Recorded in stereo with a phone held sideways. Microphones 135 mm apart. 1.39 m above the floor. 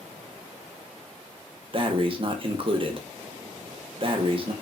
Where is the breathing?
40° right (ahead or behind), 0.6 m.